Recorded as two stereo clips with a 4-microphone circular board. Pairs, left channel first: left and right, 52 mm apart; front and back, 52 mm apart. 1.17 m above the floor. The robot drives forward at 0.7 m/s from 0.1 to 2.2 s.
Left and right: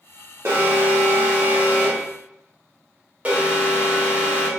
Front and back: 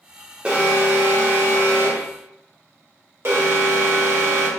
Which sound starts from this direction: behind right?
An alarm, at 0.5 s.